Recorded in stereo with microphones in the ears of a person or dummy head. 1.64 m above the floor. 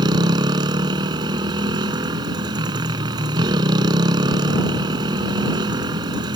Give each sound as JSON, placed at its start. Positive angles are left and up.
{"t": 0.0, "sound": "a motorcycle", "side_deg": -20}